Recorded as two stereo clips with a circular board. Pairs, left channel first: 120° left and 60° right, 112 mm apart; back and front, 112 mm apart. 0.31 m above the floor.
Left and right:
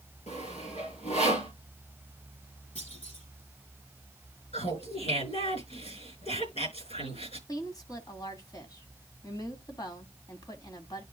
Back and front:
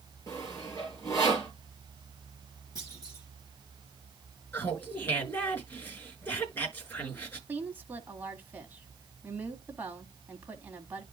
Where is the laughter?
110° left, 5 m.